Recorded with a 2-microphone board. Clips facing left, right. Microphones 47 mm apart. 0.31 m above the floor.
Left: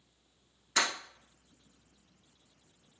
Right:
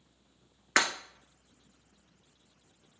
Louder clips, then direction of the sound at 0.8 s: Right 4 dB; 65° right (ahead or behind).